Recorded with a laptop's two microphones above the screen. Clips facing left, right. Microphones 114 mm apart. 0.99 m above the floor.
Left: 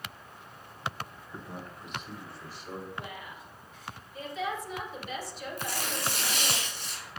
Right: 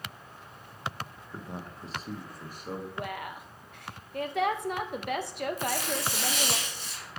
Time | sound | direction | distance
1.3 | a man speaking | 10° right (ahead or behind) | 0.6 m
3.0 | a woman speaking | 60° right (ahead or behind) | 0.7 m
5.6 | tearing paper | 50° left (ahead or behind) | 2 m